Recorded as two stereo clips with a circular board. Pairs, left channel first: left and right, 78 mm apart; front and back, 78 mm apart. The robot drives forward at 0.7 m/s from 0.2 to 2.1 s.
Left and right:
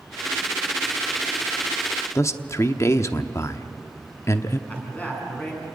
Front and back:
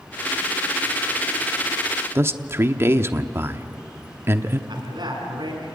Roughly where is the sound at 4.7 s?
Behind.